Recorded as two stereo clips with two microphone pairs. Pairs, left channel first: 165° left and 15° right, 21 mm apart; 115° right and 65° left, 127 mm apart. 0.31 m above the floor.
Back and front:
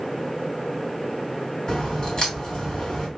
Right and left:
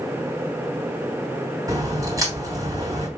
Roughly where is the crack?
Behind left.